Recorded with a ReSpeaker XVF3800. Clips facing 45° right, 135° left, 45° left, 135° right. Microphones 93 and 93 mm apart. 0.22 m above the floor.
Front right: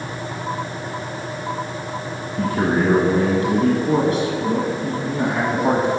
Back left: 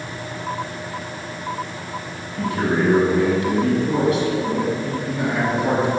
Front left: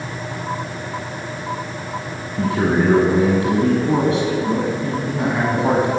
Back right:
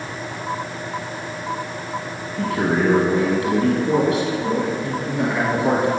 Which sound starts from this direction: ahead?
A man speaking, at 2.4 s.